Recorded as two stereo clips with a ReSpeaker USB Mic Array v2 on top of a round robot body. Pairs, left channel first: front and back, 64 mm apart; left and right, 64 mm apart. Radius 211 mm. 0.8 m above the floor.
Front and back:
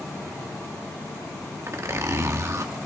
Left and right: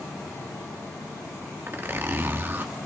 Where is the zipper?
145° right, 1.9 m.